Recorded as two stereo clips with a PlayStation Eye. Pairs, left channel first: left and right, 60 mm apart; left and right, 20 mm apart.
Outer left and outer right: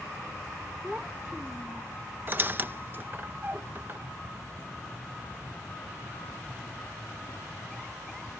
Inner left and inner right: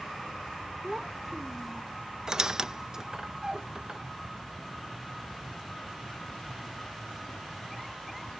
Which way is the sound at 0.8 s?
15° right (ahead or behind).